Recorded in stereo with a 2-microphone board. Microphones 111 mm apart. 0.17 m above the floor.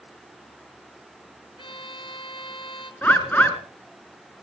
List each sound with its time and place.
1.6 s a violin: 50° left (ahead or behind), 1.0 m
3.0 s a bird: 15° left (ahead or behind), 1.8 m